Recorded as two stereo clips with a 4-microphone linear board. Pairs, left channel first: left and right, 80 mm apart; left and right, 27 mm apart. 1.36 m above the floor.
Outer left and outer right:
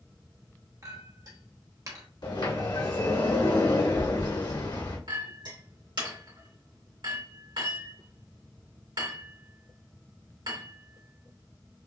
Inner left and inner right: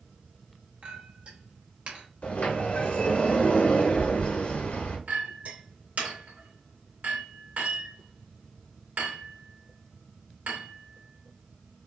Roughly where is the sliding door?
Left.